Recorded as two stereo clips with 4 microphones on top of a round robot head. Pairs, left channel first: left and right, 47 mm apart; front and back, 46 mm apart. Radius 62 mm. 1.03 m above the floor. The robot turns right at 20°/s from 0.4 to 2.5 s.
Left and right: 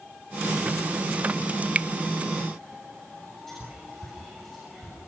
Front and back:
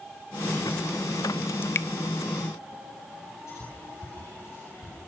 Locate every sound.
1.6 s dripping: 35° right, 0.7 m; by 1.9 s 30° right, 0.7 m
3.5 s whispering: 5° left, 9 m